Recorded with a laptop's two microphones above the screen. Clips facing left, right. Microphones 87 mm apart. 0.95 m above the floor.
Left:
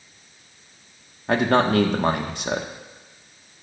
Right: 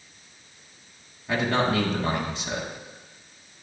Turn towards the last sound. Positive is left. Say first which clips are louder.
# left 5 dB
turn(degrees=60)  # may be behind; listen again after turning